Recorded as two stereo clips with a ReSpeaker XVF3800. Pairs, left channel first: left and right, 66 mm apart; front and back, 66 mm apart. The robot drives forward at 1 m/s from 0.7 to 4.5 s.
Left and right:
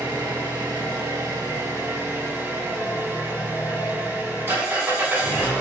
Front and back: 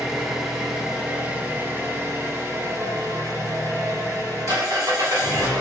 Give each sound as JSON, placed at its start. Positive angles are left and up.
{"t": 0.0, "sound": "an engine running", "azimuth_deg": -100, "distance_m": 2.0}